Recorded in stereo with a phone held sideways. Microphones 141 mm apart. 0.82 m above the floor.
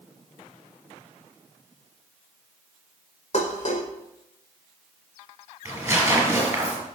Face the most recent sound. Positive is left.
turn(degrees=-15)  # may be behind; listen again after turning